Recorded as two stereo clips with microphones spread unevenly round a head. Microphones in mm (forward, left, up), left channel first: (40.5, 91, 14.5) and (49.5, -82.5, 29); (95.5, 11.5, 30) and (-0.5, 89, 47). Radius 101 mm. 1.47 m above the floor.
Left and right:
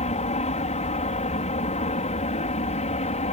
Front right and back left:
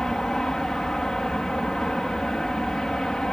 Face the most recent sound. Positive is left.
turn(degrees=45)